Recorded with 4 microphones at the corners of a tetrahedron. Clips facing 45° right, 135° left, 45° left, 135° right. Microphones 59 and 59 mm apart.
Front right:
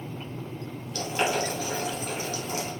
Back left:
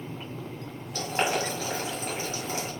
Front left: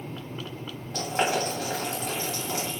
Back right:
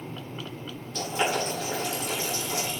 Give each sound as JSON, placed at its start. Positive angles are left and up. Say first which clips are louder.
{"t": 0.9, "sound": "boiling", "louder": "even, front left 1 dB", "azimuth_deg": 80, "distance_m": 1.8}